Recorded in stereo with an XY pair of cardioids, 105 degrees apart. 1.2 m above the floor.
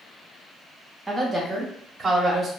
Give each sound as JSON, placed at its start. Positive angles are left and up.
{"t": 1.1, "sound": "a woman speaking", "azimuth_deg": -10, "distance_m": 1.5}